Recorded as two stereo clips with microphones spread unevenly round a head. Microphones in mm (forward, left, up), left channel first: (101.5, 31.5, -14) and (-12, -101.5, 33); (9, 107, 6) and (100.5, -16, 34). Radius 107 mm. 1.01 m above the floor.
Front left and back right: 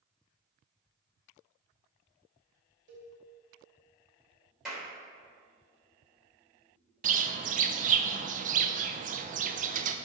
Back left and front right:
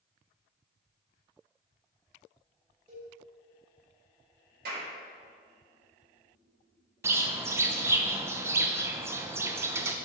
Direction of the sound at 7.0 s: 130° right.